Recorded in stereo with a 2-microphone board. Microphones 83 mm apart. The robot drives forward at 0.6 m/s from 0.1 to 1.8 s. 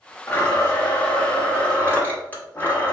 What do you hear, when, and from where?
0.3 s a blender: 20° left (ahead or behind), 1.3 m